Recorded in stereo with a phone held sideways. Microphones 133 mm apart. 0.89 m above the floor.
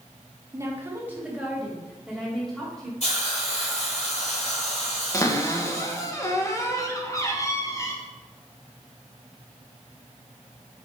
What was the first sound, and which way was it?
A woman speaking, 20° right (ahead or behind).